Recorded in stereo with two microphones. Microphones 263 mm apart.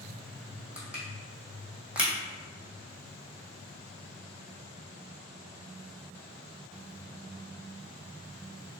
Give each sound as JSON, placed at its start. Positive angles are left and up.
{"t": 0.8, "sound": "crushing", "side_deg": -5, "distance_m": 1.4}